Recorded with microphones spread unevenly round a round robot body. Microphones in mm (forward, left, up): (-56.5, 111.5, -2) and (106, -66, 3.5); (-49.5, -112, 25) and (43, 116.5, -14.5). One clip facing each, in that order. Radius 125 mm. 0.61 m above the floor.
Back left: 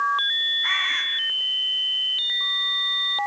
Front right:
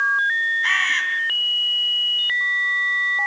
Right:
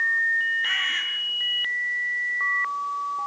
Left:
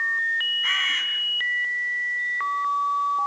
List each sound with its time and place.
0.6 s a bird: 10° right, 4 m